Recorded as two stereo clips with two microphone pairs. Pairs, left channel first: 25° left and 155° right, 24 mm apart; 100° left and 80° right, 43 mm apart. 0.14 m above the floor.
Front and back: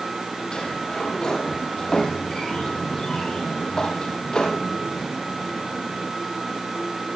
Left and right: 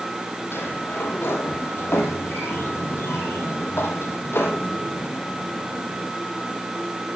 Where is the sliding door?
85° left, 4.5 m.